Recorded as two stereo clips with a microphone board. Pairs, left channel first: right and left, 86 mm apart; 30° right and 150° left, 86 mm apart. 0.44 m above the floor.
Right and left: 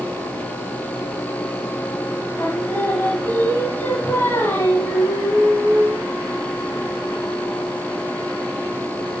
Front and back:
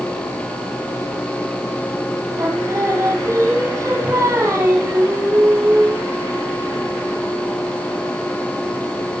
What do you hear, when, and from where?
2.4 s singing: 155° right, 6 m